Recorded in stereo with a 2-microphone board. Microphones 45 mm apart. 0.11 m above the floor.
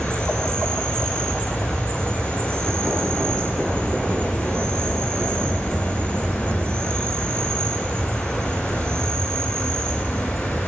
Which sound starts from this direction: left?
An insect, at 0.0 s.